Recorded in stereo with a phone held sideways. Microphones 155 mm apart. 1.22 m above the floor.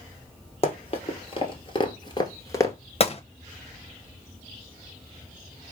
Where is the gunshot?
40° left (ahead or behind), 0.8 m.